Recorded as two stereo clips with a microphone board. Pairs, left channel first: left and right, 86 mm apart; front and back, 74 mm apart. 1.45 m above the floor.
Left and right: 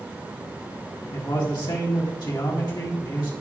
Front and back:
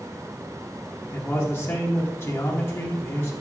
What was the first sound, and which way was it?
A man speaking, 55° left.